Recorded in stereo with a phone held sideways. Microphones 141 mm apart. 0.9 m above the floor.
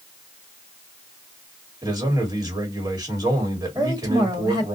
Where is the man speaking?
30° right (ahead or behind), 1.5 m.